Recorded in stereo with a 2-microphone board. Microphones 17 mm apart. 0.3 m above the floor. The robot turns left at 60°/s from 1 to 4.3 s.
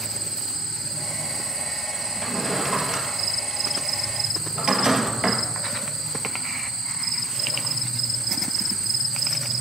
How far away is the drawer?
About 2 m.